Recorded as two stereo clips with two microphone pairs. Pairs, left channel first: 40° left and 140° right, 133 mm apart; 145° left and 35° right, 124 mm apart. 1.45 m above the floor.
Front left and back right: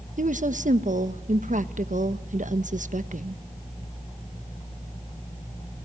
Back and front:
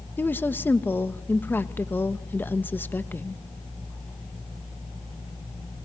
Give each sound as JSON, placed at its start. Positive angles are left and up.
{"t": 0.2, "sound": "a woman speaking", "azimuth_deg": -140, "distance_m": 1.1}